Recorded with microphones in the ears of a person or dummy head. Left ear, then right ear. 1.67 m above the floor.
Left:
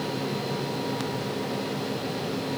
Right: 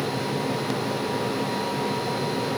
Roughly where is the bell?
No bell in this recording.